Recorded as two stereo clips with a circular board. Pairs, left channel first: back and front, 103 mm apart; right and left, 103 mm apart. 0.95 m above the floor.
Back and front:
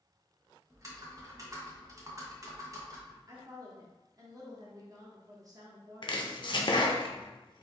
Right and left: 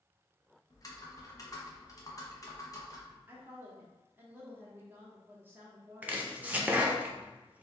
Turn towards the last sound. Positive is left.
turn(degrees=160)